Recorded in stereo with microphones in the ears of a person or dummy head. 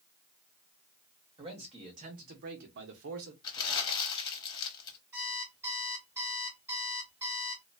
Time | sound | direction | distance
1.4 | a man speaking | 25° right (ahead or behind) | 1.2 m
3.4 | crumpling | 25° left (ahead or behind) | 0.8 m
5.1 | an alarm clock | 15° right (ahead or behind) | 1.0 m